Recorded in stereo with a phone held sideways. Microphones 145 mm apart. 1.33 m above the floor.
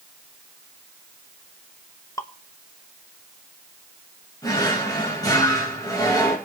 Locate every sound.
2.2 s dripping: 20° left (ahead or behind), 0.8 m
4.4 s a drawer: 25° left (ahead or behind), 3 m